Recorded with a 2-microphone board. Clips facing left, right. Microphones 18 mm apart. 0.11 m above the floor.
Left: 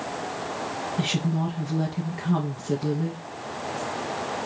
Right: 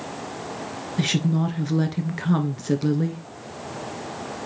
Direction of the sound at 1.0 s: 40° right (ahead or behind).